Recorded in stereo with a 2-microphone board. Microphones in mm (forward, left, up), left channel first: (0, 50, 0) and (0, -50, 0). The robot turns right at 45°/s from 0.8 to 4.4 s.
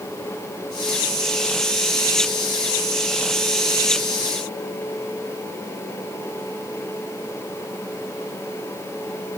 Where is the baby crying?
No baby crying in this recording.